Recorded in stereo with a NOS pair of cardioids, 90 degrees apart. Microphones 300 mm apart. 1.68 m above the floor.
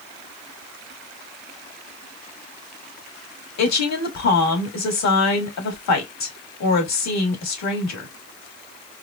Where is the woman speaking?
65° left, 3 m.